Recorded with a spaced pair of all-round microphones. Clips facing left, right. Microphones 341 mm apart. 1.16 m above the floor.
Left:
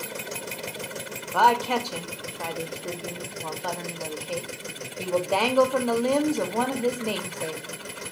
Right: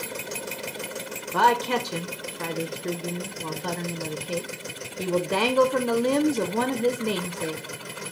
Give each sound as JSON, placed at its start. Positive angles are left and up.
{"t": 1.3, "sound": "a woman speaking", "side_deg": -25, "distance_m": 0.5}